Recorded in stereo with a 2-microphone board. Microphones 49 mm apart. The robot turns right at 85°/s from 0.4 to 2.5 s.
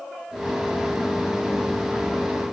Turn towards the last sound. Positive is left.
No sound to turn to.